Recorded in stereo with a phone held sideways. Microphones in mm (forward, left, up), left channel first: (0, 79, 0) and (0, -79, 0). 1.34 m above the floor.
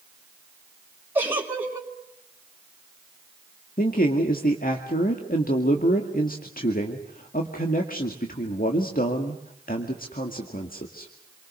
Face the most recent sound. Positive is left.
turn(degrees=65)  # may be behind; listen again after turning